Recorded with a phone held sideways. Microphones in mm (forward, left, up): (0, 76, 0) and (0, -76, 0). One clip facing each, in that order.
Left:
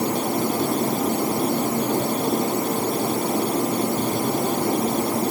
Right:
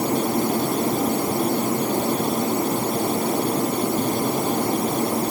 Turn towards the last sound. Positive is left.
No sound to turn to.